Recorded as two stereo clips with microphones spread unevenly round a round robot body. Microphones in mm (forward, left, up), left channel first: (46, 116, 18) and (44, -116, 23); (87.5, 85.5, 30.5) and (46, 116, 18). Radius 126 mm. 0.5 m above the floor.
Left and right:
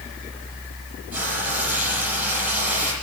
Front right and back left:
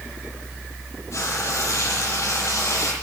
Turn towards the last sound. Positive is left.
turn(degrees=-5)